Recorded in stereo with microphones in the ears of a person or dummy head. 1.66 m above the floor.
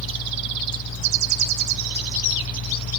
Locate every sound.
0.0 s a fan: 60° left (ahead or behind), 0.8 m